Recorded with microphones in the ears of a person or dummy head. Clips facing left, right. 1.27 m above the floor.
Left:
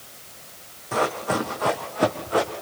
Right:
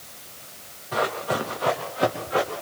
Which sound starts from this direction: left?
Running footsteps, at 0.9 s.